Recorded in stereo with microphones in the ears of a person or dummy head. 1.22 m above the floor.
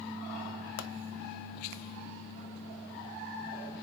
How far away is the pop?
About 0.7 m.